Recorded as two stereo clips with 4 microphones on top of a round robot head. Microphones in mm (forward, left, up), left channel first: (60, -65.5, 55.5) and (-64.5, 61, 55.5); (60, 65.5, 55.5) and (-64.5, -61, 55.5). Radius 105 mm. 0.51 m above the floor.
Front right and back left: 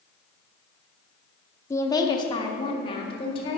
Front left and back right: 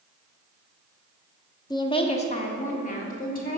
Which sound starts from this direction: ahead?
A woman speaking, at 1.7 s.